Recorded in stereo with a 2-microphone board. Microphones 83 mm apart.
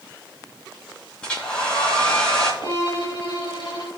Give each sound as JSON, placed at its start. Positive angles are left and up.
{"t": 1.2, "sound": "a hair dryer", "side_deg": 10, "distance_m": 3.5}
{"t": 2.6, "sound": "a violin", "side_deg": 60, "distance_m": 3.0}